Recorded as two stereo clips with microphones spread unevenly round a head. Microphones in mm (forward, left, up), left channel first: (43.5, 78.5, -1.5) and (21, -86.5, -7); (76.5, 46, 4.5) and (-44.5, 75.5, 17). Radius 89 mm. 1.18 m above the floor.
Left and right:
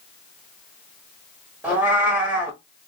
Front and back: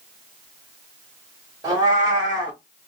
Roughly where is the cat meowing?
Behind.